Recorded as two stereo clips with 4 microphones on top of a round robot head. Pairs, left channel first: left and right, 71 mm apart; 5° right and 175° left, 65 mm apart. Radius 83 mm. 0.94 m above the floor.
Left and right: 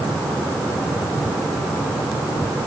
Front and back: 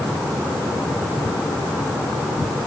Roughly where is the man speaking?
No man speaking in this recording.